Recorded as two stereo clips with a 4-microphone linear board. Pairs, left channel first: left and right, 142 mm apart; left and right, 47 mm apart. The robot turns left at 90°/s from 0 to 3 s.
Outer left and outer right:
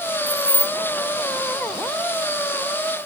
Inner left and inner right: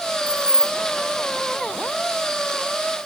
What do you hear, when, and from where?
0.3 s keys jangling: 25° left (ahead or behind); by 0.8 s 10° left (ahead or behind)